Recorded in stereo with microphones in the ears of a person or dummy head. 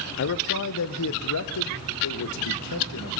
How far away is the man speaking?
About 0.8 m.